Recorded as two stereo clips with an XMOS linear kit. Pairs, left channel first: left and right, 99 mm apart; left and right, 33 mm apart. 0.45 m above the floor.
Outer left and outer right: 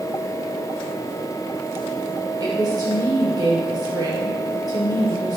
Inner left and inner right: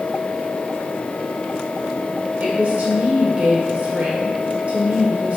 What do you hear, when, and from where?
2.4 s a woman speaking: 40° right (ahead or behind), 1.1 m